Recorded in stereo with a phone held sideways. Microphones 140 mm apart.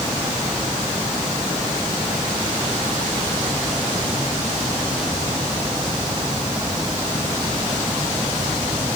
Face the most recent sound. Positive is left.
No sound to turn to.